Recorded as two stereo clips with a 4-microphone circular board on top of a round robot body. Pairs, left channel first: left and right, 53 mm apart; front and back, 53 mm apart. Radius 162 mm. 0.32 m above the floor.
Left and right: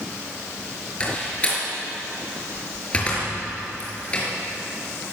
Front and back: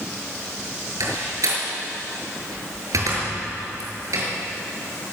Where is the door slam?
160° left, 6 m.